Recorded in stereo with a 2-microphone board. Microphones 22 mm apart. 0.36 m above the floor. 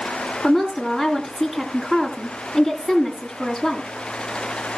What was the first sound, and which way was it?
A woman speaking, 5° right (ahead or behind).